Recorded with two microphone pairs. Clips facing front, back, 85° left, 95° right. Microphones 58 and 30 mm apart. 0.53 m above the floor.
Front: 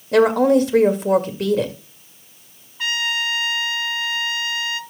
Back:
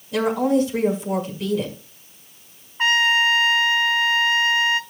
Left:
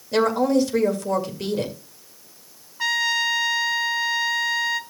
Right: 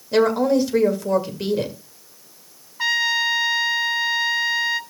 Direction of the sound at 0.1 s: 15° right.